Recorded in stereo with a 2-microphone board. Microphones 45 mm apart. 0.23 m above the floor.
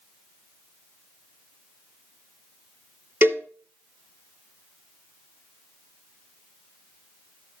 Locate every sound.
3.2 s a cowbell: 60° right (ahead or behind), 1.3 m